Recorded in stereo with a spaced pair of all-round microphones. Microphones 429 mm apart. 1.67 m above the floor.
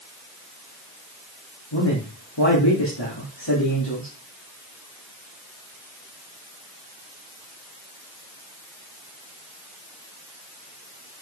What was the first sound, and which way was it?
A man speaking, 85° left.